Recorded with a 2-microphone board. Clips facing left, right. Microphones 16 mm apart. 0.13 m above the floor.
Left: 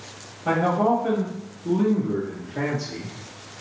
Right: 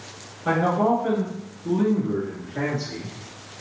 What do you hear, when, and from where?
0.5 s a man speaking: 35° right (ahead or behind), 1.9 m; by 3.2 s 50° right (ahead or behind), 2.5 m